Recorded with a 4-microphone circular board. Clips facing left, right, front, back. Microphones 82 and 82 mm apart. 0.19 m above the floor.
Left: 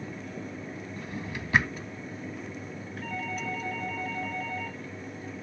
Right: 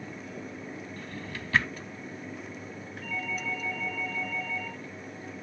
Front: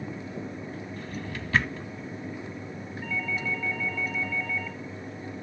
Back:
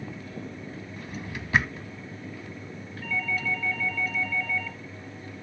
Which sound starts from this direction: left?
A doorbell, at 3.0 s.